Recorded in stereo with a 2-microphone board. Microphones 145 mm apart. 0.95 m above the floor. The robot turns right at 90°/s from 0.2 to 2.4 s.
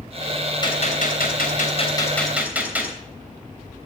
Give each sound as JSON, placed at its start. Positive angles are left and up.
{"t": 0.6, "sound": "a gunshot", "azimuth_deg": 30, "distance_m": 3.0}